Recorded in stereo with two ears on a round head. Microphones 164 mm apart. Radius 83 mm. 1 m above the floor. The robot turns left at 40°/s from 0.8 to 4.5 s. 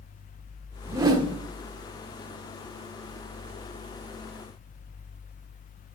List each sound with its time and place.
0.9 s a whoosh: 15° right (ahead or behind), 0.9 m; by 1.4 s 30° right (ahead or behind), 0.9 m